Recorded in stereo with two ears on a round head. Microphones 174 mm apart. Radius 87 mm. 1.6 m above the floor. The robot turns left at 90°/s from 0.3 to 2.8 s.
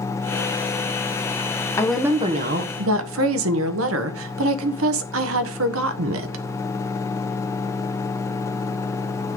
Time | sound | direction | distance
1.8 | a woman speaking | 15° left | 1.3 m